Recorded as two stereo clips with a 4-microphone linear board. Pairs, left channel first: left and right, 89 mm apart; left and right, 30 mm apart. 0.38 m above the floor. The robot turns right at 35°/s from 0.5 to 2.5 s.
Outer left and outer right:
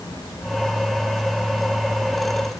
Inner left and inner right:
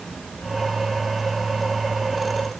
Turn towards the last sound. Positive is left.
No sound to turn to.